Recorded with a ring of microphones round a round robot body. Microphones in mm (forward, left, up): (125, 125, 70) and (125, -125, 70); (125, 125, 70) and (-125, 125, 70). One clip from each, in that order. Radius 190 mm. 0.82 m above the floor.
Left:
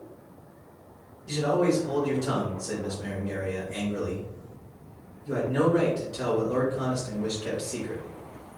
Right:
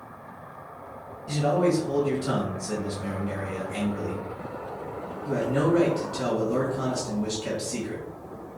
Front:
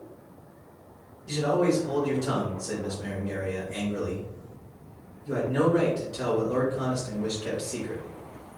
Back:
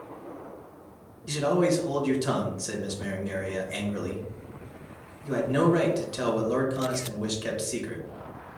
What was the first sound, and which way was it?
A man speaking, 170° left.